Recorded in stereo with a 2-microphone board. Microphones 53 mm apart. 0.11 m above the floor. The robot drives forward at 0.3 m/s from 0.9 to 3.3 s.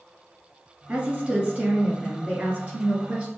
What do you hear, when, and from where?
0.9 s a woman speaking: 30° right (ahead or behind), 1.3 m; by 3.3 s 25° right (ahead or behind), 1.4 m